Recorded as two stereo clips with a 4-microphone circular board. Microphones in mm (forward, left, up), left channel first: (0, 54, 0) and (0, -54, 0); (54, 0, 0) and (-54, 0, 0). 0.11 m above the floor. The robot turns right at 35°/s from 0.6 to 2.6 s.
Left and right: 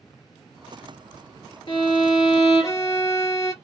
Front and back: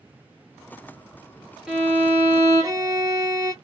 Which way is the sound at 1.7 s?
105° left.